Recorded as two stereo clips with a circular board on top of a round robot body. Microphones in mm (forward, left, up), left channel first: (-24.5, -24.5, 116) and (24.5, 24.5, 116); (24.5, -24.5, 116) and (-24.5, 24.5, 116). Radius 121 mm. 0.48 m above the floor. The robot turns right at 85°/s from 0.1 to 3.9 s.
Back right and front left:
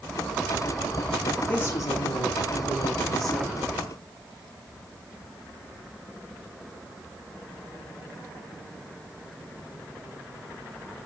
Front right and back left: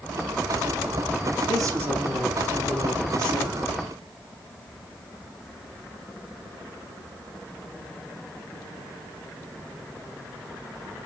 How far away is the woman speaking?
About 5.5 m.